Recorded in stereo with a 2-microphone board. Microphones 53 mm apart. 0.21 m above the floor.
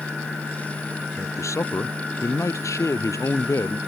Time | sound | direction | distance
1.2 | a man speaking | 80° left | ?